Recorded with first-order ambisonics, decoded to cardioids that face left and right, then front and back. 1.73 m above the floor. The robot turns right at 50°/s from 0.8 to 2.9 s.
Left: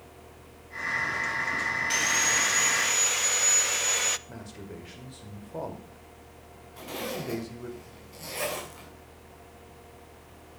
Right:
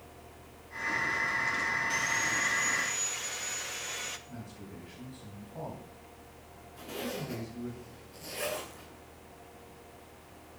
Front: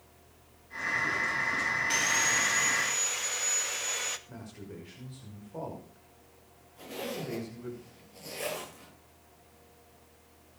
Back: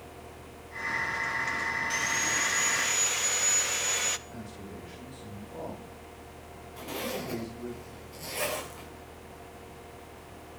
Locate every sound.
1.9 s sawing: 60° left, 0.7 m; by 4.2 s 110° left, 0.7 m
4.3 s a man speaking: 85° left, 5.5 m
6.8 s a zipper: 135° left, 7.5 m